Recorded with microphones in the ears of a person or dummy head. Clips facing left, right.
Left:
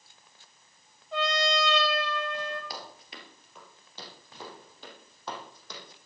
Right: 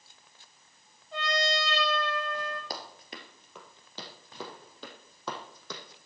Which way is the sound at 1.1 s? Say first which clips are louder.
Left 2 dB; 60° left (ahead or behind).